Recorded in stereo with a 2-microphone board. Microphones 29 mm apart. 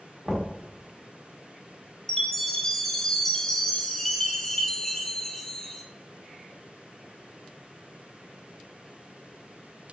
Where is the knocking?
15° right (ahead or behind), 1.1 m.